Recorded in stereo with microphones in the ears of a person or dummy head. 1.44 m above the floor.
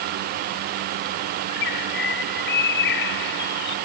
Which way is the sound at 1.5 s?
65° left (ahead or behind).